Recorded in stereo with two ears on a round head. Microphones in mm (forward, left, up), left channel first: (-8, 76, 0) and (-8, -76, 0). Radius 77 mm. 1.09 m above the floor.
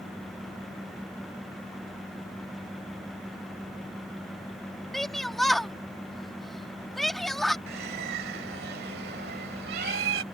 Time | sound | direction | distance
4.9 | a shout | centre (ahead or behind) | ?
7.7 | a bird | 65° right (ahead or behind) | ?